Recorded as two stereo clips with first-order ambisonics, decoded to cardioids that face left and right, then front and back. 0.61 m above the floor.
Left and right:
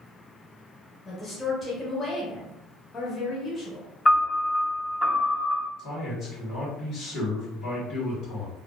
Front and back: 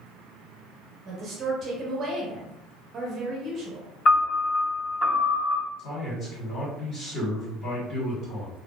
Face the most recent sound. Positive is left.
turn(degrees=40)